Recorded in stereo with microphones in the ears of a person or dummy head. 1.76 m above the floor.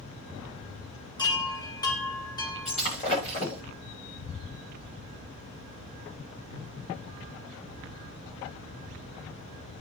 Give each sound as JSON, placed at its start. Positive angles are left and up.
{"t": 1.2, "sound": "a chime", "side_deg": 20, "distance_m": 1.8}
{"t": 2.6, "sound": "breaking glass", "side_deg": 40, "distance_m": 8.5}